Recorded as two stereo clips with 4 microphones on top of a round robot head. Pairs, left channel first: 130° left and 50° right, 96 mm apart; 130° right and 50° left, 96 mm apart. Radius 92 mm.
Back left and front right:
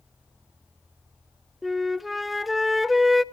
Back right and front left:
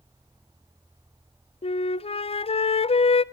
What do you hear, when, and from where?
1.6 s a flute: 140° right, 0.7 m